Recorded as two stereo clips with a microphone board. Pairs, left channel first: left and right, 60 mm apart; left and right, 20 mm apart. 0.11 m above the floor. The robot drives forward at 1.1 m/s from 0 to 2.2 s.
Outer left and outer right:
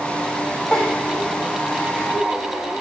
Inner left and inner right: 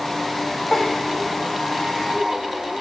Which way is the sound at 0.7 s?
10° left (ahead or behind).